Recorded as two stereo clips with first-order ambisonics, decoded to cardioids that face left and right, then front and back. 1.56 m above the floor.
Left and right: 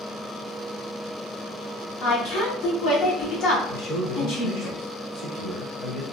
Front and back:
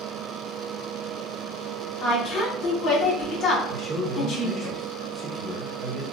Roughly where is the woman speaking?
Ahead left.